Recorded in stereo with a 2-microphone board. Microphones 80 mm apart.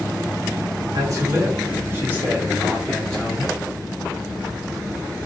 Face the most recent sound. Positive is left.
turn(degrees=15)  # may be behind; listen again after turning